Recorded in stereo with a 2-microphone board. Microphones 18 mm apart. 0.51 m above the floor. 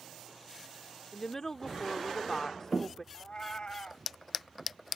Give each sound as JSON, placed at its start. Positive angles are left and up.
{"t": 1.1, "sound": "a woman speaking", "side_deg": 20}
{"t": 3.1, "sound": "a cat meowing", "side_deg": 60}